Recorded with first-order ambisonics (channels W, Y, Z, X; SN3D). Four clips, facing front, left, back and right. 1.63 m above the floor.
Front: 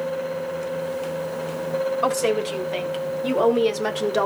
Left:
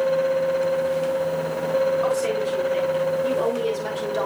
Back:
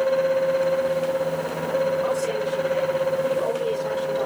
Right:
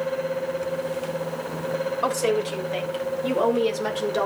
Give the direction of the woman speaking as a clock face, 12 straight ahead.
1 o'clock.